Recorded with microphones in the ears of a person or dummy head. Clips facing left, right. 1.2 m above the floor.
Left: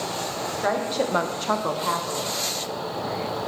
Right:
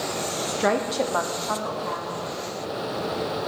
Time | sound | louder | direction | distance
0.5 | a woman speaking | right 2 dB | 55° right (ahead or behind) | 0.8 m